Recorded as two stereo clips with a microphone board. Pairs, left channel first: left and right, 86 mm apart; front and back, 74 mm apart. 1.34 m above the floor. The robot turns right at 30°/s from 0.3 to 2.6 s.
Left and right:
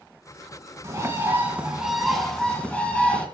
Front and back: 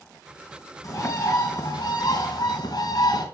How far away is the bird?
About 3.5 m.